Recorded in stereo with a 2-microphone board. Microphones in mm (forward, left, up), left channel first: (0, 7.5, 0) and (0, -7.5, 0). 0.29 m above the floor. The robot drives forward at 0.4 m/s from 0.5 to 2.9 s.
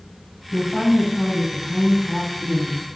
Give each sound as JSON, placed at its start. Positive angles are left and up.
{"t": 0.5, "sound": "a woman speaking", "side_deg": -10, "distance_m": 1.5}